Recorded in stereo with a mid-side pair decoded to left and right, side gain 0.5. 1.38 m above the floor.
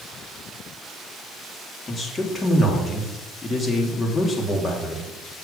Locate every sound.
1.9 s a man speaking: 30° left, 3.5 m